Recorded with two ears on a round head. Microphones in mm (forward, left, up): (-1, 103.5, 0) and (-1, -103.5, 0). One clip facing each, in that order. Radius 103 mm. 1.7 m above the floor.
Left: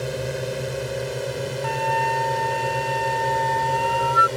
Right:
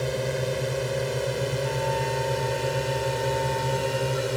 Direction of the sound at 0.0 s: 5° left (ahead or behind).